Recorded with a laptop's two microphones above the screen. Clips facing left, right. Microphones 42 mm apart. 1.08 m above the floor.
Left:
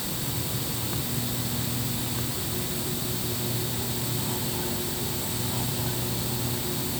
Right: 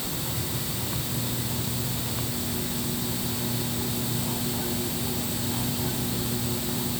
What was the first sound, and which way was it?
Only background noise.